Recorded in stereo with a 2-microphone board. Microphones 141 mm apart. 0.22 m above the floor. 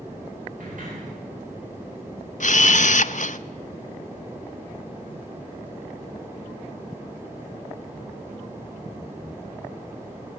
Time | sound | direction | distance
0.6 | a sliding door | 70° right (ahead or behind) | 9 m
2.4 | a camera shutter | 60° left (ahead or behind) | 0.6 m